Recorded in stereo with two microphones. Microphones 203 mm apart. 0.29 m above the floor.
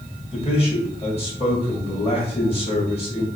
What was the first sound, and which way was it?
A man speaking, 30° left (ahead or behind).